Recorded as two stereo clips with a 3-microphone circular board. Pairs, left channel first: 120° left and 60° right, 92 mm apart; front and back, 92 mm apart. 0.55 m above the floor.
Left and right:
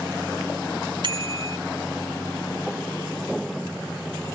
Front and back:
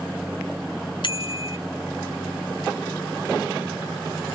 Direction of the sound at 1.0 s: 30° right.